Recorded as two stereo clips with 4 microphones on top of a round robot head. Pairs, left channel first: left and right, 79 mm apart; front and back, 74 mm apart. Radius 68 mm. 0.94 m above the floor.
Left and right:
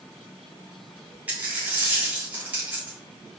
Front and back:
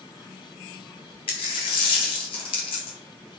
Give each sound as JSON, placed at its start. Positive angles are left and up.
{"t": 1.3, "sound": "a dropped coin", "azimuth_deg": -15, "distance_m": 0.7}